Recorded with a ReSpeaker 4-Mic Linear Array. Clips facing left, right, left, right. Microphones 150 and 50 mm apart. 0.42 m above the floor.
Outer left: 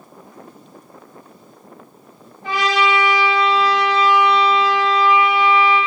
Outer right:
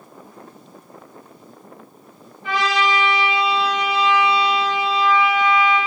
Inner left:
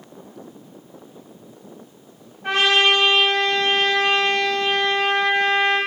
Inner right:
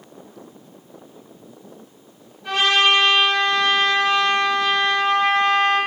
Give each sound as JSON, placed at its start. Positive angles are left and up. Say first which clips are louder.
{"t": 2.4, "sound": "a trumpet", "louder": "outer left 2 dB, even", "side_deg": 45, "distance_m": 2.5}